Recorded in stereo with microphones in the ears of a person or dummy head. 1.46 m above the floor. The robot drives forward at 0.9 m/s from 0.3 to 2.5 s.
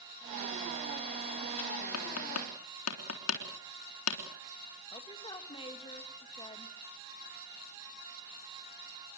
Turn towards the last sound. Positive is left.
turn(degrees=25)  # may be behind; listen again after turning